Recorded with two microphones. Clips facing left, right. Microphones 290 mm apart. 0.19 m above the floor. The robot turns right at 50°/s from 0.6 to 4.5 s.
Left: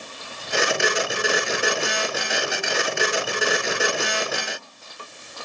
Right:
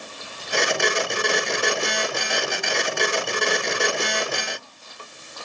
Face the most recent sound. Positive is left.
No sound to turn to.